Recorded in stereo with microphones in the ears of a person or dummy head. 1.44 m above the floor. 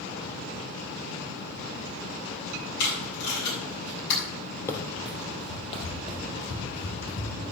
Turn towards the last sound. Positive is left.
turn(degrees=50)  # may be behind; listen again after turning